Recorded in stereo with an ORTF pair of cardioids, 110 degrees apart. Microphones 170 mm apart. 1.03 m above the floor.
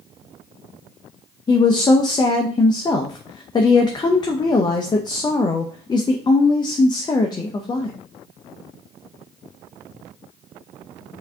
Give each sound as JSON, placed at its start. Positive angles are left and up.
{"t": 1.5, "sound": "a woman speaking", "azimuth_deg": 25, "distance_m": 0.6}